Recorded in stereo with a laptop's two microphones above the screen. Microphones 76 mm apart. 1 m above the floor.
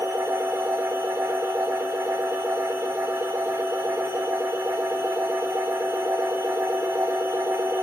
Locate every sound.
0.0 s a machine running: 35° right (ahead or behind), 3.5 m